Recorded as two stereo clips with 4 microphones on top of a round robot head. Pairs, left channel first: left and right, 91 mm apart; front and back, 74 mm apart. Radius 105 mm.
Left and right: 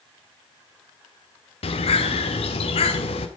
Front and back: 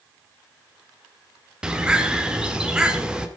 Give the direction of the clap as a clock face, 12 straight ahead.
I don't hear a clap.